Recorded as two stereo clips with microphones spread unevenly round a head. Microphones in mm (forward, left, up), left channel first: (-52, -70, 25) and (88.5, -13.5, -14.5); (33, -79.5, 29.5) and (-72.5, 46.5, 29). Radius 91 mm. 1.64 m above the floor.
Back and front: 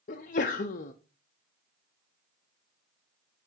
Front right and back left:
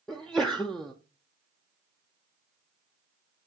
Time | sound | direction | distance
0.1 | a sneeze | 135° right | 0.6 m